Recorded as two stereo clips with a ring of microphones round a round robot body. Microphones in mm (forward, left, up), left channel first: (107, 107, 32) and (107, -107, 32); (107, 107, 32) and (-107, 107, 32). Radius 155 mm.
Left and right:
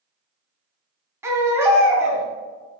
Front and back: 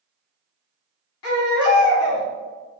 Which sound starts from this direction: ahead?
A baby crying, at 1.2 s.